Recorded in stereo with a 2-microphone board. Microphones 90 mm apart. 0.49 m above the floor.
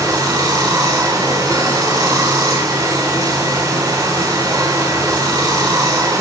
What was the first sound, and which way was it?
Running water, 45° right (ahead or behind).